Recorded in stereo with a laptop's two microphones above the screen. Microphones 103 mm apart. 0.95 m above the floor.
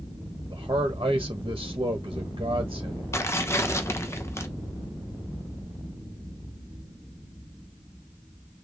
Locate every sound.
0.5 s a man speaking: 45° right (ahead or behind), 1.0 m
3.1 s tearing paper: 25° left (ahead or behind), 0.7 m